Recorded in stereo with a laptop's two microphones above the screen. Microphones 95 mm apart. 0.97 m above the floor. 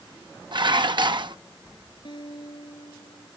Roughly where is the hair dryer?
No hair dryer in this recording.